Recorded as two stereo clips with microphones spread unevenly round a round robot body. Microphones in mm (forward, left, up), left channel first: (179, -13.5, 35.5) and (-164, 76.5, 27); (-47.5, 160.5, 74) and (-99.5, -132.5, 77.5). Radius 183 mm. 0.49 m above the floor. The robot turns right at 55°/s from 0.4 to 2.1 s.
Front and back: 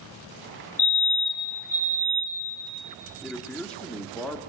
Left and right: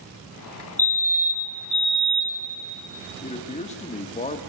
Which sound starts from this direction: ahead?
A fire alarm, at 0.8 s.